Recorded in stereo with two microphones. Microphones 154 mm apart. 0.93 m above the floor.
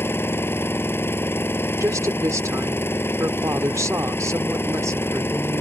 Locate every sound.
0.0 s an engine running: 15° left (ahead or behind)
1.8 s a woman speaking: 20° right (ahead or behind)